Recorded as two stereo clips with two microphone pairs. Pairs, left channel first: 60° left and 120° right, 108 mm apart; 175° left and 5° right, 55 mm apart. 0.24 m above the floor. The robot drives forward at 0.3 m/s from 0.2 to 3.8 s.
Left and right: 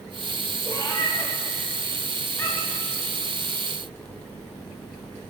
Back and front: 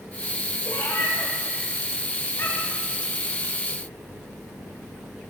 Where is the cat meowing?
120° left, 8 m; by 2.9 s 125° left, 8.5 m.